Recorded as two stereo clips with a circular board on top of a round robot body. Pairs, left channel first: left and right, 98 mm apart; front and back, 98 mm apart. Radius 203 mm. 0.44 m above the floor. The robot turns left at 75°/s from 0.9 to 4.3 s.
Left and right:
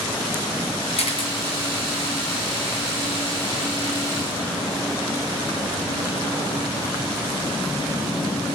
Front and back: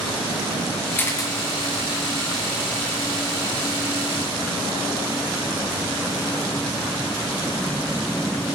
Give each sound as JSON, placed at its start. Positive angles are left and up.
{"t": 1.0, "sound": "a camera shutter", "azimuth_deg": 75, "distance_m": 1.7}